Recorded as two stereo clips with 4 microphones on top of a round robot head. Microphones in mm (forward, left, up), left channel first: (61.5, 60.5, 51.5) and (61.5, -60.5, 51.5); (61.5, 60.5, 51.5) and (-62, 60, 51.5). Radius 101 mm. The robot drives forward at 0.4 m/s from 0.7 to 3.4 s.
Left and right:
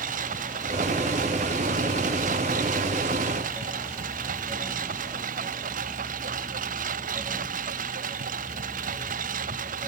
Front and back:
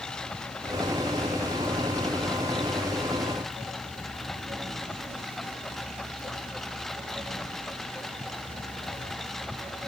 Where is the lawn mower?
85° right.